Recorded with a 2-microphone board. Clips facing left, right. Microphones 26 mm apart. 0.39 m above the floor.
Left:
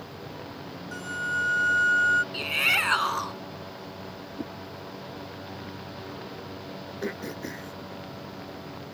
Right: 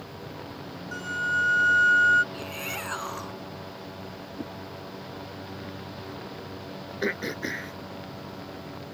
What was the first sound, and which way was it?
A flute, 15° right (ahead or behind).